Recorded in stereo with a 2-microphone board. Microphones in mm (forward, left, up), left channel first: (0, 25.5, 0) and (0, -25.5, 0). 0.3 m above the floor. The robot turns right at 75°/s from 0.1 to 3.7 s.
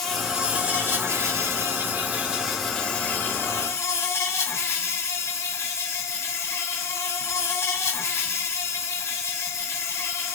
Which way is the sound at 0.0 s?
175° left.